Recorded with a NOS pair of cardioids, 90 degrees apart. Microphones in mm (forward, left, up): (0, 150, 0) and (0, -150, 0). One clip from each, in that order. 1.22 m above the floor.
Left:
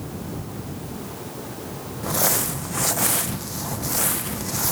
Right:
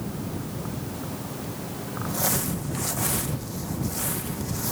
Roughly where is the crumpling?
Ahead left.